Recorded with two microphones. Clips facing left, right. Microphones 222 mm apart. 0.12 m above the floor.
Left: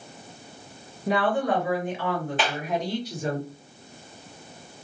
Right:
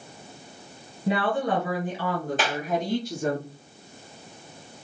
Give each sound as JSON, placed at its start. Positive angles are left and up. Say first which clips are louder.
{"t": 1.1, "sound": "a woman speaking", "louder": "left 1 dB", "side_deg": -20, "distance_m": 1.7}
{"t": 2.4, "sound": "a clap", "louder": "even", "side_deg": -40, "distance_m": 2.0}